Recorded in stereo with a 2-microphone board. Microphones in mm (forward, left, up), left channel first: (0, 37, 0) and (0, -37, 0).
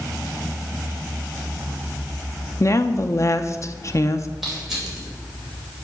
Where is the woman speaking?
45° left (ahead or behind), 0.5 m.